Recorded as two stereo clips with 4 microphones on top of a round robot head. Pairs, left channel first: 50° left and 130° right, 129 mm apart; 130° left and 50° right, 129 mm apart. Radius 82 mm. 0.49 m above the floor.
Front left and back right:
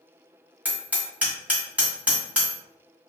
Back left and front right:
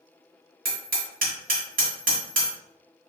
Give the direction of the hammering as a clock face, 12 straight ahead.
2 o'clock.